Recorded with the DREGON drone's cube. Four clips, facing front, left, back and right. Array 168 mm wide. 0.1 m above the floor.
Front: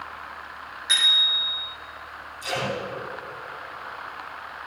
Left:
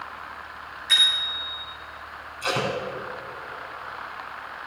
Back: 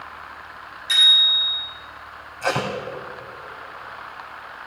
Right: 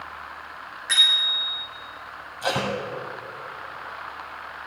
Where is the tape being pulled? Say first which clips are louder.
Right 1 dB, back 5 dB; 145° right, 3.5 m.